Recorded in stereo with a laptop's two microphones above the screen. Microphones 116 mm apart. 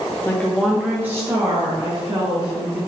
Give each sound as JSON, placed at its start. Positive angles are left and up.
{"t": 0.2, "sound": "a woman speaking", "side_deg": 15, "distance_m": 0.6}